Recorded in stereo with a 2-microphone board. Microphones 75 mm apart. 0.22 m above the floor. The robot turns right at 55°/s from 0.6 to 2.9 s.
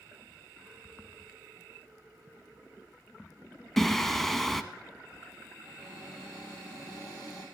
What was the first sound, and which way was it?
Singing, 5° left (ahead or behind).